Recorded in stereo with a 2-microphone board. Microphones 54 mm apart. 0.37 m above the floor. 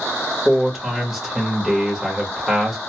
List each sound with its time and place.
0.5 s a man speaking: 5° right (ahead or behind), 1.2 m